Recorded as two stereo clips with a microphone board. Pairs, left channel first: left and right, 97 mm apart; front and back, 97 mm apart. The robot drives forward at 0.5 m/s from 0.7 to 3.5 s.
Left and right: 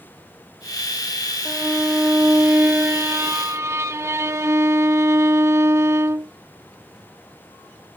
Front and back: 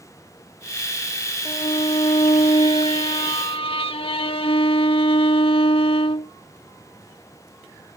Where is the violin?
15° right; by 6.3 s 30° right.